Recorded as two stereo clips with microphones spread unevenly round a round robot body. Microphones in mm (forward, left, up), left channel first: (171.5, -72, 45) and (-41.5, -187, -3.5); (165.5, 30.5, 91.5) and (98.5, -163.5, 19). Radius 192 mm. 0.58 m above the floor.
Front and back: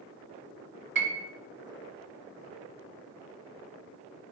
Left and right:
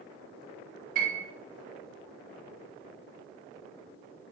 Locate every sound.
0.9 s a piano: 135° right, 2.5 m